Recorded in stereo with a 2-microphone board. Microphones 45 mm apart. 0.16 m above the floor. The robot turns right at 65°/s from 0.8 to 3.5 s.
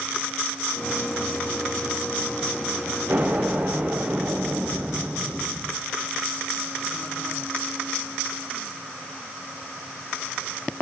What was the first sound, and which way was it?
An explosion, 50° right (ahead or behind).